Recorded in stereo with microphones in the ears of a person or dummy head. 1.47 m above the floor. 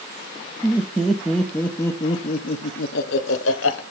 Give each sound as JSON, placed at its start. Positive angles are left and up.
{"t": 0.6, "sound": "laughter", "side_deg": -10, "distance_m": 1.5}